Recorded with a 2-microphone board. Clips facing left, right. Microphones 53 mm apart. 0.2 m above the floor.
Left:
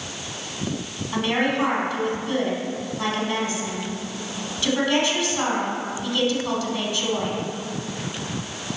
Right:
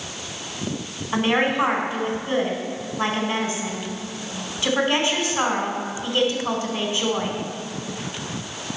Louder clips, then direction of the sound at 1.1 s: Right 2 dB; 25° right (ahead or behind).